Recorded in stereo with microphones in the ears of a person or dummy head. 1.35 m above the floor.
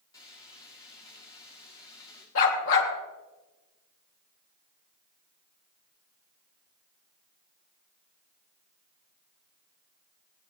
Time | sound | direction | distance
0.1 | frying | 25° left (ahead or behind) | 2.5 m
2.4 | a dog barking | 70° left (ahead or behind) | 2.5 m